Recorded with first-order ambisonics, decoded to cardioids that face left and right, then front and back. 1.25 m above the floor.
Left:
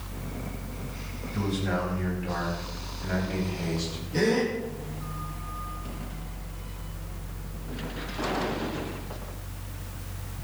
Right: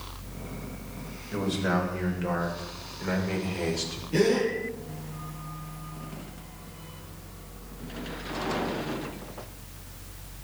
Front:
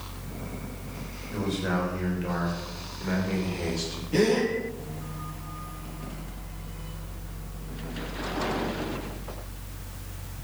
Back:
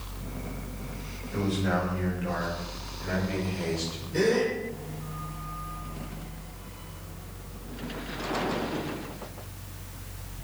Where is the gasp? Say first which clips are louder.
Right 1 dB, front 1 dB; 40° right, 9 m.